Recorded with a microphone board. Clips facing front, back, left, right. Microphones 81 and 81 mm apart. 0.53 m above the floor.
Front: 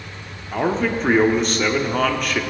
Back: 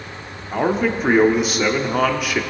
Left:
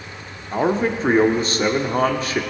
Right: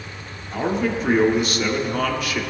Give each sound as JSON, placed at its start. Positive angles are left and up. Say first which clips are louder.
{"t": 0.5, "sound": "a man speaking", "louder": "back 1 dB, left 3 dB", "azimuth_deg": 105, "distance_m": 1.0}